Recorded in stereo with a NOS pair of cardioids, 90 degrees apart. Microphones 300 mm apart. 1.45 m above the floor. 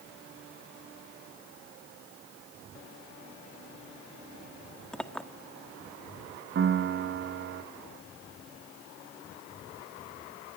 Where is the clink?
5° left, 1.8 m.